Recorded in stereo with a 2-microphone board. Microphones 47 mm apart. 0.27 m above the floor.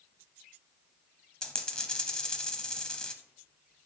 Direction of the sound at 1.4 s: 15° left (ahead or behind).